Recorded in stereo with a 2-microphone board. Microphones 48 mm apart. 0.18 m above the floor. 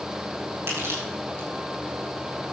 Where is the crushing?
65° right (ahead or behind), 6 m.